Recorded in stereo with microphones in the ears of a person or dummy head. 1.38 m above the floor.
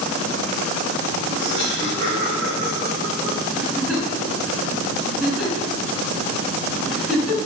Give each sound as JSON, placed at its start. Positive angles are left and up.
{"t": 1.3, "sound": "laughter", "side_deg": -55, "distance_m": 7.0}
{"t": 3.5, "sound": "a giggle", "side_deg": -5, "distance_m": 5.5}